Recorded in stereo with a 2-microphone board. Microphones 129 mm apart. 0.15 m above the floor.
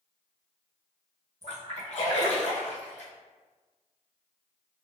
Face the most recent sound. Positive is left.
turn(degrees=60)  # may be behind; listen again after turning